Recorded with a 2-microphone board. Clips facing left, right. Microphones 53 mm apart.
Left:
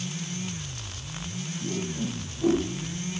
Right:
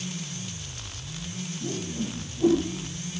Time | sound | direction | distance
1.6 | a whoosh | 30° right (ahead or behind) | 9 m